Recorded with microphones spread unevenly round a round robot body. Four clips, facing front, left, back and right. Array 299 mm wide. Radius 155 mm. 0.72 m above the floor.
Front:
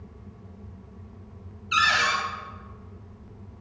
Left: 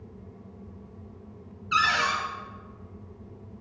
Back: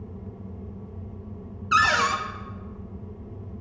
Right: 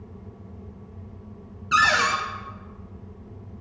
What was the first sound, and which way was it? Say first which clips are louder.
A cupboard door: right 4 dB, back 2 dB; 125° right.